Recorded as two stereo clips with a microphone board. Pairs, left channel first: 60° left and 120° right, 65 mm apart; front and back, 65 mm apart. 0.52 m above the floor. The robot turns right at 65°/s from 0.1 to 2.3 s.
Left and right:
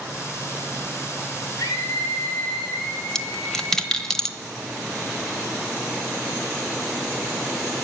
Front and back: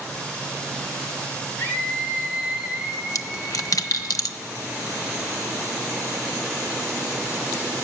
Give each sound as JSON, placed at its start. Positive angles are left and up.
{"t": 1.6, "sound": "a scream", "azimuth_deg": 45, "distance_m": 7.0}
{"t": 3.1, "sound": "a dropped coin", "azimuth_deg": -20, "distance_m": 1.0}